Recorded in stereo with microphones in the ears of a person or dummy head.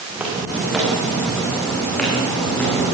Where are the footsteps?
10° right (ahead or behind), 7 m; by 2.9 s 5° left (ahead or behind), 9.5 m.